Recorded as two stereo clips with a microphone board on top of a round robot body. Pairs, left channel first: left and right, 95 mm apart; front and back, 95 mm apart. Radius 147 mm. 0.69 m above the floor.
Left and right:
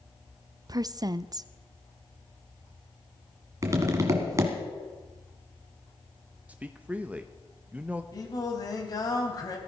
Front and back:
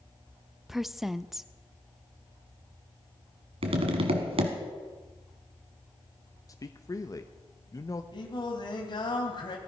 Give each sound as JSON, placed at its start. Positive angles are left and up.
{"t": 0.7, "sound": "a woman speaking", "azimuth_deg": -95, "distance_m": 0.6}
{"t": 3.6, "sound": "tapping", "azimuth_deg": -150, "distance_m": 1.4}
{"t": 6.5, "sound": "a man speaking", "azimuth_deg": -20, "distance_m": 1.0}
{"t": 8.1, "sound": "singing", "azimuth_deg": 40, "distance_m": 2.5}